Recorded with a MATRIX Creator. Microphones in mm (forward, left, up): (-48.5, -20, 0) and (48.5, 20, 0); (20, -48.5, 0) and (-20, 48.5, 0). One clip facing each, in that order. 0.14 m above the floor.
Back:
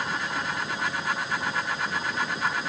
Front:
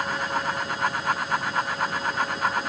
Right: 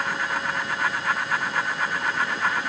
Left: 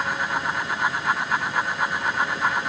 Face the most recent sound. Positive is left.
No sound to turn to.